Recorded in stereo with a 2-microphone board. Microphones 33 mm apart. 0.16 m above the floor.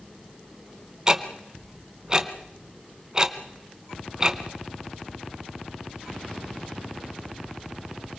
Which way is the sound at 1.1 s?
25° right (ahead or behind).